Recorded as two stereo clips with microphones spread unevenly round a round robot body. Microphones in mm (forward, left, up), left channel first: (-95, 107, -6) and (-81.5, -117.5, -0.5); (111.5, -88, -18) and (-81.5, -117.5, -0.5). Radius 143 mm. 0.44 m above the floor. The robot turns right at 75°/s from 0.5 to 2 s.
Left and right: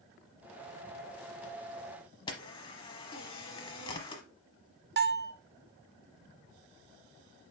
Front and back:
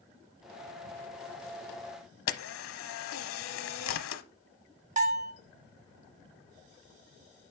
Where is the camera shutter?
20° left, 0.9 m.